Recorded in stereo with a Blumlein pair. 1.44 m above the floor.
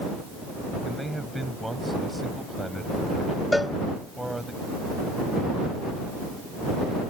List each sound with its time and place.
0.8 s a man speaking: 5° right
3.5 s a cowbell: 5° left